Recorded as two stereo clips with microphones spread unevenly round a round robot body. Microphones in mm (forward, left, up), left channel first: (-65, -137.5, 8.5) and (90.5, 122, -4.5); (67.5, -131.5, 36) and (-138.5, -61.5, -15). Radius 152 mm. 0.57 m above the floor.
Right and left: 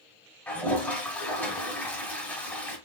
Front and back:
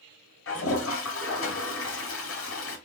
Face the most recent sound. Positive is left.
turn(degrees=-35)